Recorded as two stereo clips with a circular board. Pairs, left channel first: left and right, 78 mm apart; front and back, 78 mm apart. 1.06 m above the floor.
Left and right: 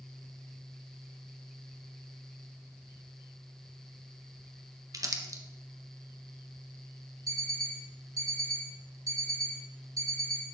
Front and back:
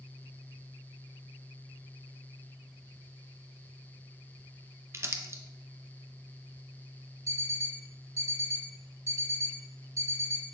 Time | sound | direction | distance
4.9 | crumpling | 130° right | 0.9 m
7.3 | an alarm clock | 130° right | 2.5 m